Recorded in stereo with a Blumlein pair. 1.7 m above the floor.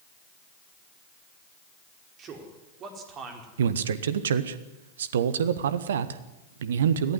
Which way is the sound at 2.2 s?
30° right.